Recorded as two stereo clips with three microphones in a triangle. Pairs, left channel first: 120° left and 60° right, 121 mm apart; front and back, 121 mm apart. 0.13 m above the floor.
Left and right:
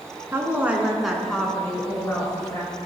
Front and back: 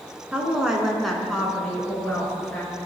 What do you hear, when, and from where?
0.3 s a woman speaking: 105° right, 1.3 m; by 2.8 s 70° left, 1.9 m